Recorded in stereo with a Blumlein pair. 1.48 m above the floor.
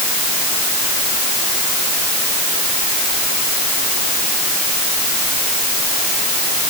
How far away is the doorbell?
I don't hear a doorbell.